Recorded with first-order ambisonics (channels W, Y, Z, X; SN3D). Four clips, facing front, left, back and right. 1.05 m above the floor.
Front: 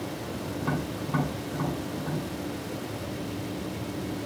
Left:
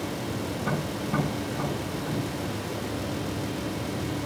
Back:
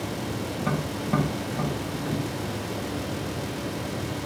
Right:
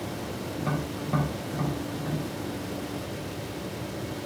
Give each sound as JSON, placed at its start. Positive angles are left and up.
{"t": 0.6, "sound": "tapping", "azimuth_deg": -175, "distance_m": 5.0}